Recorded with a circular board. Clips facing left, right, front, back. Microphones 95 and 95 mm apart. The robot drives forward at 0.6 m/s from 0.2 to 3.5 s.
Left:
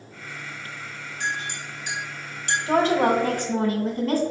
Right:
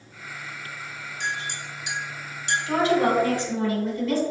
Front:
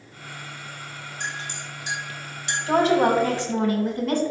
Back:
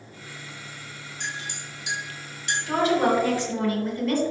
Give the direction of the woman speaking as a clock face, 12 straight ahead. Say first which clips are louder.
Left 2 dB, front 3 dB; 10 o'clock.